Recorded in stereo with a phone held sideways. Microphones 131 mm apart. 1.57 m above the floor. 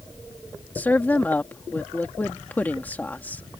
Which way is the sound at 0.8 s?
15° left (ahead or behind).